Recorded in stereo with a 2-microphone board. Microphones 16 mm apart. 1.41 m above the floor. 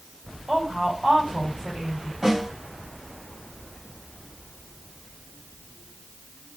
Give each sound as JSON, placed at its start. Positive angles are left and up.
{"t": 0.5, "sound": "a woman speaking", "side_deg": -70, "distance_m": 2.5}
{"t": 2.2, "sound": "a snare drum", "side_deg": -35, "distance_m": 2.0}